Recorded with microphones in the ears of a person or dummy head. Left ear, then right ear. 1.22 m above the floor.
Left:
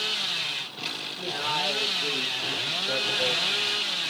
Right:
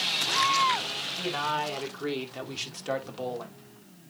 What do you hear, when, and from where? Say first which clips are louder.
1.2 s a man speaking: left 2 dB; 80° right, 3 m; by 3.6 s 75° right (ahead or behind), 3 m